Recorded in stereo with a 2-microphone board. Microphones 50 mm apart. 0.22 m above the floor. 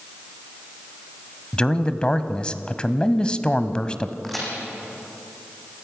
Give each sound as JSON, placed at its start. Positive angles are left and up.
{"t": 1.5, "sound": "a man speaking", "side_deg": 20, "distance_m": 1.0}
{"t": 4.2, "sound": "a crack", "side_deg": 5, "distance_m": 5.5}